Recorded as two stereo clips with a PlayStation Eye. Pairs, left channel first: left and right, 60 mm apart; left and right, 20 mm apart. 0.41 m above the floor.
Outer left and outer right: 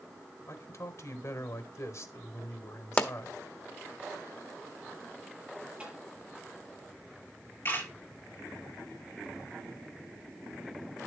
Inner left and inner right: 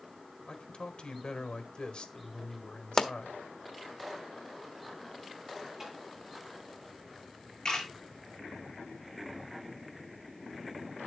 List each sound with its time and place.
0.5 s a man speaking: 55° left (ahead or behind), 1.4 m
3.0 s a pop: 25° left (ahead or behind), 1.3 m
5.8 s tapping: 10° right (ahead or behind), 8 m
7.7 s a camera shutter: 40° left (ahead or behind), 6 m